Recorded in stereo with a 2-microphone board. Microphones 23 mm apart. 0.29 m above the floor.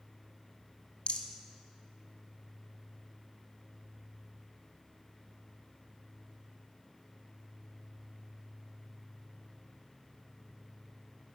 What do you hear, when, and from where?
1.1 s a rattle: 65° left (ahead or behind), 0.8 m